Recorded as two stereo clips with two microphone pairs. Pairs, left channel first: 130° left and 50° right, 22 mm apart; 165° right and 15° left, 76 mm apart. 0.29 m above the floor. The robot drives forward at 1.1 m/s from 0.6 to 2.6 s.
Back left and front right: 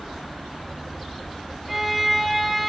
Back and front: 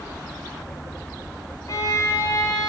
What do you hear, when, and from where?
1.7 s a violin: 135° right, 3 m; by 2.7 s 145° right, 3.5 m